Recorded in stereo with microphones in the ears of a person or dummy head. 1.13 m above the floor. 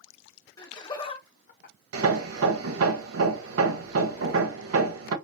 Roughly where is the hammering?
Right.